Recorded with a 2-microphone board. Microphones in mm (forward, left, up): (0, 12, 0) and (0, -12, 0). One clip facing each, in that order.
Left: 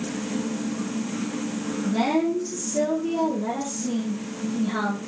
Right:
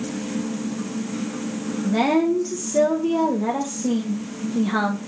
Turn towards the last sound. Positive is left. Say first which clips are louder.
# right 4 dB
turn(degrees=-50)  # may be behind; listen again after turning